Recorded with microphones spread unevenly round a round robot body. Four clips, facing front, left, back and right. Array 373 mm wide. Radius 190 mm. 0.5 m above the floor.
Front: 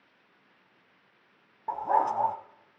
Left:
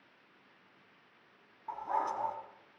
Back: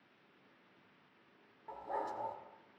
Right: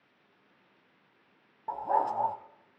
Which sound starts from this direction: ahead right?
A dog barking, at 1.7 s.